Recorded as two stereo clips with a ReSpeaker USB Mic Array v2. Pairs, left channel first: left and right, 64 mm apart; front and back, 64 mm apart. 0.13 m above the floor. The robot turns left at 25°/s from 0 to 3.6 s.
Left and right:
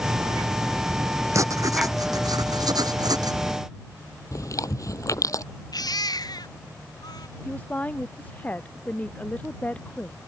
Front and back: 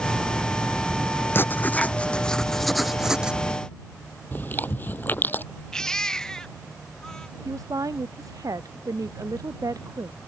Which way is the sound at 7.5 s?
155° left.